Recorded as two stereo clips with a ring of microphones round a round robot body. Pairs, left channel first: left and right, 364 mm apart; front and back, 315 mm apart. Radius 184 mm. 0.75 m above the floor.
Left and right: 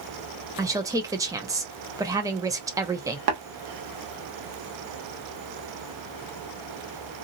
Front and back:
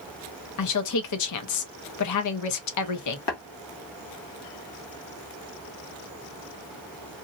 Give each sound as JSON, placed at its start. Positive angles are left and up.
{"t": 0.6, "sound": "a woman speaking", "azimuth_deg": -10, "distance_m": 0.7}
{"t": 3.3, "sound": "tapping", "azimuth_deg": -50, "distance_m": 1.3}